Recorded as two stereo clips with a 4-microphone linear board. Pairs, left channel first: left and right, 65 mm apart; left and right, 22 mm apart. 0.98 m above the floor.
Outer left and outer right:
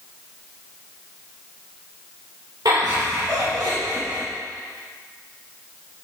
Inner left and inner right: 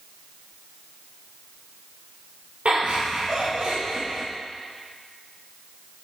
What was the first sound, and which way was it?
Laughter, 85° right.